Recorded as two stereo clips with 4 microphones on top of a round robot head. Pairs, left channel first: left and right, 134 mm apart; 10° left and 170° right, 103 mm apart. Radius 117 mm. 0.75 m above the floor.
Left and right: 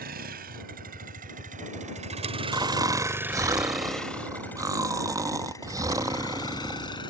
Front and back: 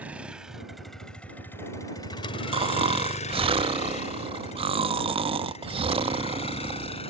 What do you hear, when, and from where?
0.0 s a vehicle: 90° right; by 7.1 s 35° left
2.5 s snoring: 155° right